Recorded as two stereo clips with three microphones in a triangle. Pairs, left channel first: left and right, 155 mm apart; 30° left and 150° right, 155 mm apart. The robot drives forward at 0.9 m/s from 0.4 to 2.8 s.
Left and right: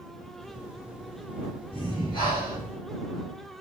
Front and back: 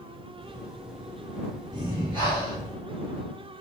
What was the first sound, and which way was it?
Breathing, 150° left.